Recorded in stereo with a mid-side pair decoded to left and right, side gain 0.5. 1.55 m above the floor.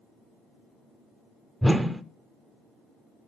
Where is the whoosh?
5° right, 0.5 m.